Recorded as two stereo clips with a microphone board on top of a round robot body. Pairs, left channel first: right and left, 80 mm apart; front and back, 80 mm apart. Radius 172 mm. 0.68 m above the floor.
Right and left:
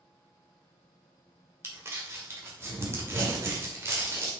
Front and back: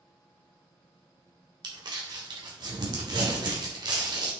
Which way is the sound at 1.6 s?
145° left.